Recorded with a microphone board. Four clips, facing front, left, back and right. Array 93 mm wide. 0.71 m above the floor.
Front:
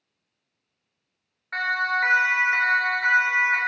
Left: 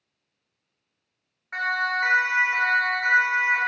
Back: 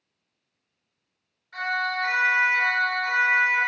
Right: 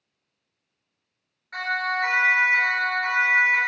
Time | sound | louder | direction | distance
1.5 | a siren | left 1 dB, front 3 dB | 25° left | 3 m